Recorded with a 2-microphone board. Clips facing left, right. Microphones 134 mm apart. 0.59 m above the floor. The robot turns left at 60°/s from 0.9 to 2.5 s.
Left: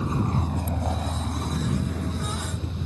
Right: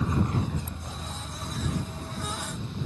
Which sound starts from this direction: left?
A vehicle, at 0.0 s.